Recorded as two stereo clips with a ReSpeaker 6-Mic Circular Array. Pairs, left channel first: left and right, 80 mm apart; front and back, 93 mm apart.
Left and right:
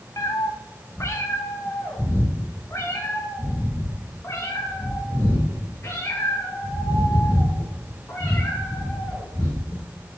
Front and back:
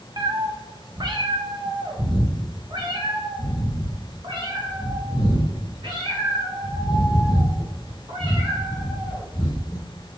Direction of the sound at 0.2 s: 135° left.